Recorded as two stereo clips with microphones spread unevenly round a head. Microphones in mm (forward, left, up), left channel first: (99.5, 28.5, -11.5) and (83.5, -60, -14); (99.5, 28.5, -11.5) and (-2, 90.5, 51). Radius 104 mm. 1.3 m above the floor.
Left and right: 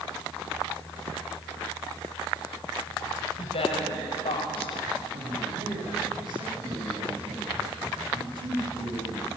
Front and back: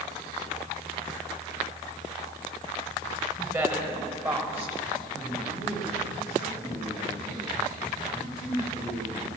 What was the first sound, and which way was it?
A woman speaking, 80° left.